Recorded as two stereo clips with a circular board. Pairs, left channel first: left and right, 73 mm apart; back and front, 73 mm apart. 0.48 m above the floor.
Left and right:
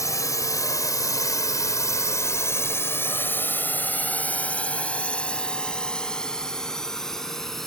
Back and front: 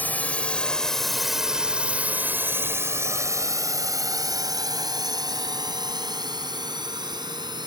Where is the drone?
120° left; by 7.7 s 5° left.